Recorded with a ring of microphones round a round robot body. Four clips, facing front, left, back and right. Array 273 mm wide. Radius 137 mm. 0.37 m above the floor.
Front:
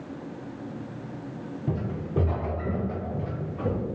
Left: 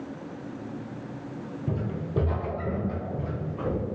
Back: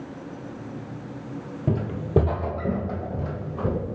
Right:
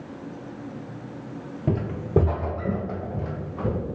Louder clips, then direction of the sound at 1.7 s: Right 8 dB, back 7 dB; 125° right.